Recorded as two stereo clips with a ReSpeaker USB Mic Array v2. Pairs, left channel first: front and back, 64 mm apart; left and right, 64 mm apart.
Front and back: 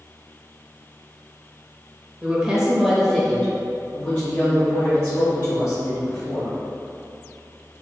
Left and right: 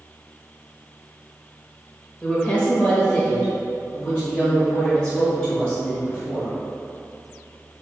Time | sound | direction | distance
2.2 | a woman speaking | 145° left | 1.1 m